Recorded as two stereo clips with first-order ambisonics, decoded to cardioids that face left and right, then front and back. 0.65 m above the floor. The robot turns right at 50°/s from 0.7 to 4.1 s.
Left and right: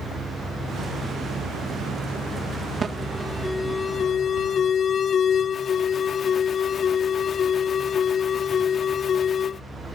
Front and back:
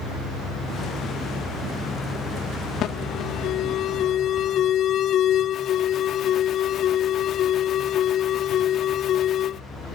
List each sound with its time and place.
2.8 s an alarm: 30° right; by 9.6 s 35° left